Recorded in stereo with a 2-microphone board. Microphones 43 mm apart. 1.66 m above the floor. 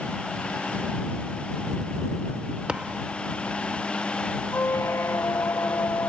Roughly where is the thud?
Right.